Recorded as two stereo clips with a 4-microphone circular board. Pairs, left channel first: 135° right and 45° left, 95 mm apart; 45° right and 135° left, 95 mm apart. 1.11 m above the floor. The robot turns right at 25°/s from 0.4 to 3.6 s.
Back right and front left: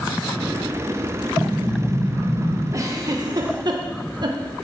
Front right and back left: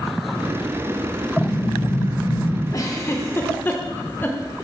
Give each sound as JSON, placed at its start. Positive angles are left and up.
{"t": 1.4, "sound": "an explosion", "azimuth_deg": -55, "distance_m": 0.9}
{"t": 2.7, "sound": "a giggle", "azimuth_deg": -5, "distance_m": 1.0}